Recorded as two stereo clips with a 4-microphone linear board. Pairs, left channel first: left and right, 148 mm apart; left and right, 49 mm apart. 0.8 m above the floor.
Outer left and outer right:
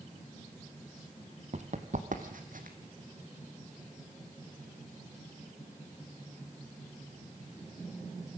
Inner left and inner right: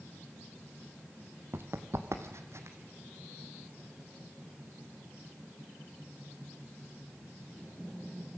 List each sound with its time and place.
1.5 s running footsteps: 50° right (ahead or behind), 1.4 m; by 2.8 s 70° right (ahead or behind), 2 m